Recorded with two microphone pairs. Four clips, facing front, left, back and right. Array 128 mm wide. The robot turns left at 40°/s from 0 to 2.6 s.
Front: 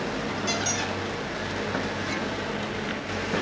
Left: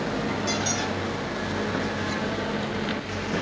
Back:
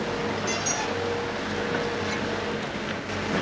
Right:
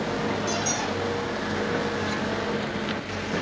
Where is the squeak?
30° left, 3 m; by 0.9 s 10° left, 3 m.